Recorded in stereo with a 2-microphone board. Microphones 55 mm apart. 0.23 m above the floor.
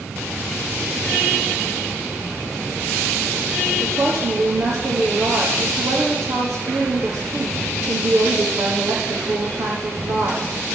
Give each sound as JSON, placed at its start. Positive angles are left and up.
{"t": 3.8, "sound": "a woman speaking", "side_deg": -75, "distance_m": 9.5}